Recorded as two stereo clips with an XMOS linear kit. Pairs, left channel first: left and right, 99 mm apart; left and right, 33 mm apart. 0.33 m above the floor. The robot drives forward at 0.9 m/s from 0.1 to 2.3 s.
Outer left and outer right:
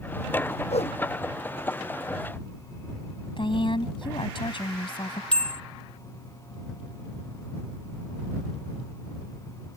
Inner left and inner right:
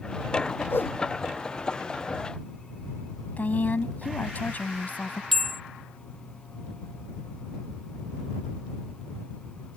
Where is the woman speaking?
55° left (ahead or behind).